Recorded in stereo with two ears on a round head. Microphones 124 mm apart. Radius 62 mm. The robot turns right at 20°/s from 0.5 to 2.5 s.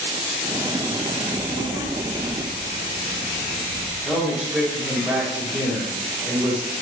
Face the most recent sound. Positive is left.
turn(degrees=-5)  # may be behind; listen again after turning